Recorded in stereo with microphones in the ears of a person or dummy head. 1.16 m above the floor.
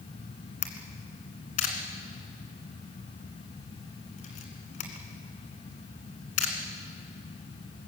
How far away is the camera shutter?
About 2.5 m.